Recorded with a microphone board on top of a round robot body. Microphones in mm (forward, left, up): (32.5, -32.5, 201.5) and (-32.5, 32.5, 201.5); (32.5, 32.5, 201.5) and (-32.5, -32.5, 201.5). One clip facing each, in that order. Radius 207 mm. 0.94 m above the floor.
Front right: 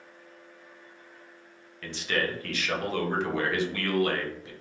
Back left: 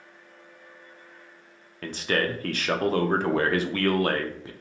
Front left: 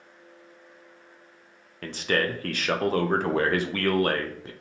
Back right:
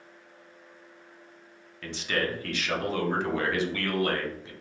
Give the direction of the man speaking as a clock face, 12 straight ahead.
9 o'clock.